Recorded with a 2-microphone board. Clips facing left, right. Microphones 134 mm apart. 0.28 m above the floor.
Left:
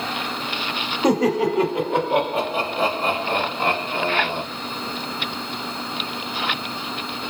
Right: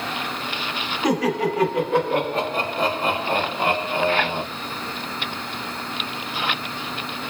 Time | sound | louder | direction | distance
1.0 | laughter | left 3 dB | 40° left (ahead or behind) | 1.2 m